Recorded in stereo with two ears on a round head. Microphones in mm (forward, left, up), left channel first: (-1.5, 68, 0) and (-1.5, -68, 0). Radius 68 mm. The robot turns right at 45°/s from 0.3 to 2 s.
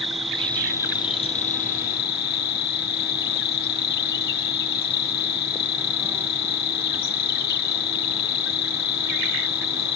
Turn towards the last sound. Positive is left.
turn(degrees=75)